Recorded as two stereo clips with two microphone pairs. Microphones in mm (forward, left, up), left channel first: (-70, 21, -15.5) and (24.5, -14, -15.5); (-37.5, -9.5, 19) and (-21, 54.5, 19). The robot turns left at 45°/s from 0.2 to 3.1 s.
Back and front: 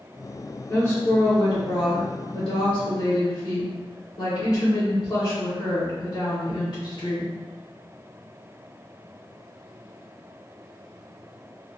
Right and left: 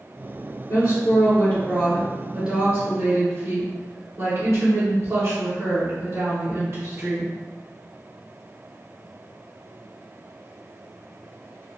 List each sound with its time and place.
0.7 s a woman speaking: 130° right, 1.3 m; by 7.3 s 125° left, 1.3 m